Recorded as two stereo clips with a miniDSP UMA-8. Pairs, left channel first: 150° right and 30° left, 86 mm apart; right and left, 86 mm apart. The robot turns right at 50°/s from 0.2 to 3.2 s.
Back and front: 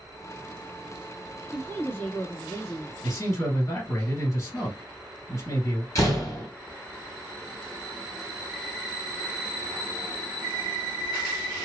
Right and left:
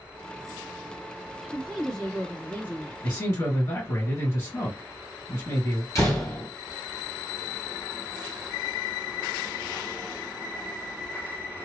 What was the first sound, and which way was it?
A woman speaking, 170° left.